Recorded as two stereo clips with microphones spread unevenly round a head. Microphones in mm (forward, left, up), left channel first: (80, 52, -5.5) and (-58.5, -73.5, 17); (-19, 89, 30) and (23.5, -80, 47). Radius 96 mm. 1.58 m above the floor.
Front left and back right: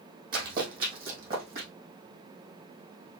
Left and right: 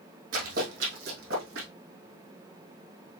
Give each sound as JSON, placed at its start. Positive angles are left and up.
{"t": 0.3, "sound": "running footsteps", "azimuth_deg": -110, "distance_m": 3.0}